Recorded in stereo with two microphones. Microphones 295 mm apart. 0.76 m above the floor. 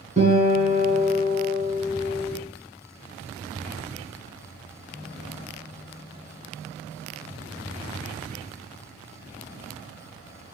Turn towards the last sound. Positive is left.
turn(degrees=-25)  # may be behind; listen again after turning